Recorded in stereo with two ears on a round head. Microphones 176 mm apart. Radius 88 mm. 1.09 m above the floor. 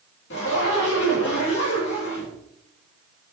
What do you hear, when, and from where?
0.3 s a zipper: 65° left (ahead or behind), 2 m